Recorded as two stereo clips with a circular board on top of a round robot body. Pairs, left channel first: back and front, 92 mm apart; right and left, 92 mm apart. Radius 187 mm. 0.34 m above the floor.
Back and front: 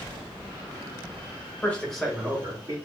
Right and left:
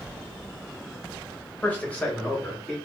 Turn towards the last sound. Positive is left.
turn(degrees=-5)